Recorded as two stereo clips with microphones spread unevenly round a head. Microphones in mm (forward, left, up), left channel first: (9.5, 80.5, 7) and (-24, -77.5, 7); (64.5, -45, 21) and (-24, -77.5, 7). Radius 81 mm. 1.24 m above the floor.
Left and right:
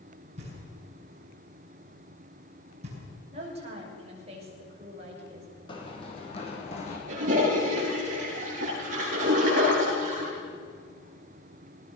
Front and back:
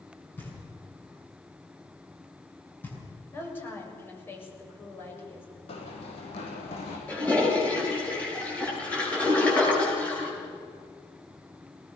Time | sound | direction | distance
0.4 | knocking | 50° right | 7.5 m
3.3 | a woman speaking | 45° right | 7 m
5.7 | running footsteps | 15° left | 3.5 m
7.1 | a toilet flushing | 55° right | 9.5 m